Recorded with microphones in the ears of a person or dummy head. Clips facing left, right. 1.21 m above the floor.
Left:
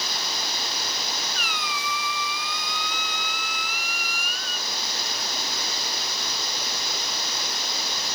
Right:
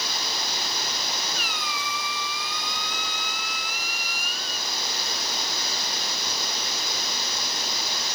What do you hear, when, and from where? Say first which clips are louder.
1.4 s a squeak: even; 40° left (ahead or behind), 1.3 m